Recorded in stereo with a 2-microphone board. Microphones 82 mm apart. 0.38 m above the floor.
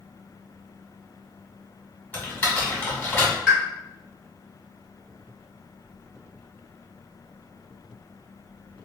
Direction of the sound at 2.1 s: 20° left (ahead or behind).